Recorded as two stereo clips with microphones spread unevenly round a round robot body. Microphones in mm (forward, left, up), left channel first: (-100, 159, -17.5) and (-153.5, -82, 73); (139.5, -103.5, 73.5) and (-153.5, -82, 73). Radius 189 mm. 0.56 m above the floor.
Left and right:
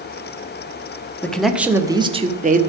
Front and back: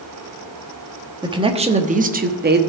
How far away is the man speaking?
About 1.1 m.